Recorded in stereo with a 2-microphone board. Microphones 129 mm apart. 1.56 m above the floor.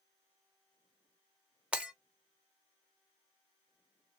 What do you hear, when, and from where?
1.7 s breaking glass: 10° right (ahead or behind), 1.2 m